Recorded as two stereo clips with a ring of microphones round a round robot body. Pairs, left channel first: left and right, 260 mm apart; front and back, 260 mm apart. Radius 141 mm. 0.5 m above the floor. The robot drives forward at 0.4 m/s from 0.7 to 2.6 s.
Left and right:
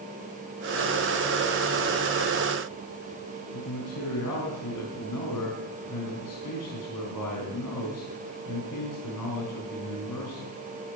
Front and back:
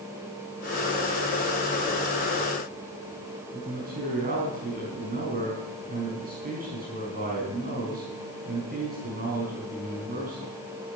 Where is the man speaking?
125° left, 4.5 m.